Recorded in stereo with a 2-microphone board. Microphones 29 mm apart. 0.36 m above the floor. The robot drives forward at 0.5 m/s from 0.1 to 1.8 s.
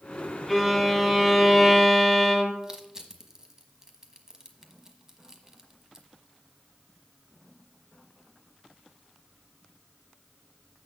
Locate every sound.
0.5 s a violin: centre (ahead or behind), 1.9 m
2.6 s crushing: 15° right (ahead or behind), 1.2 m